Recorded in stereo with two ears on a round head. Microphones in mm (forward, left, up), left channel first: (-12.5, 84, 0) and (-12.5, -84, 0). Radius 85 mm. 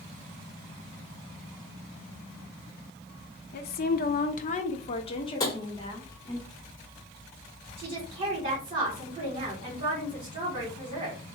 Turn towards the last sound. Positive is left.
turn(degrees=-30)  # may be behind; listen again after turning